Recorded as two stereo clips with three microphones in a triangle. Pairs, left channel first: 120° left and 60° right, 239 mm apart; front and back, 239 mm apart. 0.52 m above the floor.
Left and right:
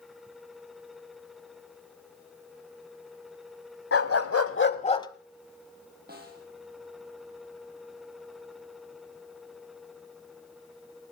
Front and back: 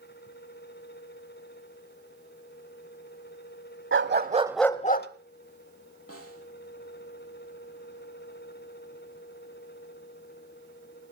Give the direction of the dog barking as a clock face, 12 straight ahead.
7 o'clock.